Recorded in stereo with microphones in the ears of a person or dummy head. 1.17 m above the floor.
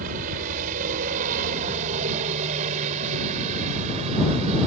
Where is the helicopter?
45° right (ahead or behind); by 4.7 s 35° right (ahead or behind).